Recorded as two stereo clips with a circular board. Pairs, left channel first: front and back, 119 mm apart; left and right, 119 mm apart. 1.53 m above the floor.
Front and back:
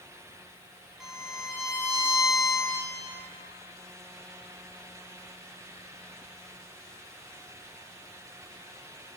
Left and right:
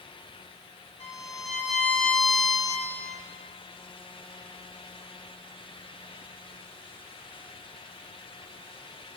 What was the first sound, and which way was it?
A violin, 95° left.